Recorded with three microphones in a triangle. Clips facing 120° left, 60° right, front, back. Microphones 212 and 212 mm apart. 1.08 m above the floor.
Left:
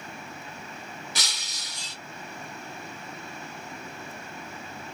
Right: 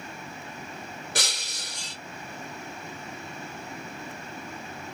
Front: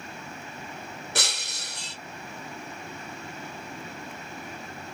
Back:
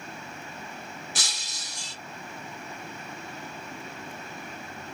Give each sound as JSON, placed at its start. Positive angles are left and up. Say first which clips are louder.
{"t": 1.1, "sound": "breaking glass", "louder": "right 5 dB, front 6 dB", "azimuth_deg": -25, "distance_m": 1.6}